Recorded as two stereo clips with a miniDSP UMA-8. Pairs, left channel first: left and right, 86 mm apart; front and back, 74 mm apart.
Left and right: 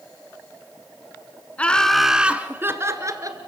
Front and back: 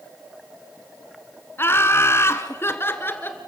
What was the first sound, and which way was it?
Laughter, 25° left.